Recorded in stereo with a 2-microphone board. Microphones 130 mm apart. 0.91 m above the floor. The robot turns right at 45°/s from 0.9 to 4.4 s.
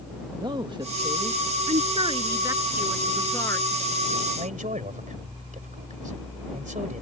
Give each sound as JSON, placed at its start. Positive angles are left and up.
{"t": 0.3, "sound": "a man speaking", "side_deg": -35}
{"t": 1.7, "sound": "a woman speaking", "azimuth_deg": -60}
{"t": 4.4, "sound": "a man speaking", "side_deg": -85}